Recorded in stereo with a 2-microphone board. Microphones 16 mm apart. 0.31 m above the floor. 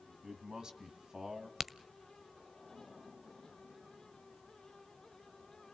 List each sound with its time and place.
0.2 s a man speaking: 50° right (ahead or behind), 2 m
1.6 s a crack: 15° right (ahead or behind), 0.6 m